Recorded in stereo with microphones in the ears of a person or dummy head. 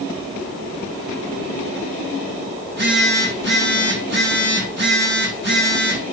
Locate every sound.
2.6 s a phone buzzing: 60° right (ahead or behind), 3 m